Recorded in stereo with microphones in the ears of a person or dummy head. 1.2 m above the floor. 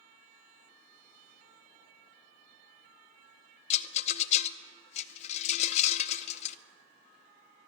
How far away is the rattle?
About 0.6 m.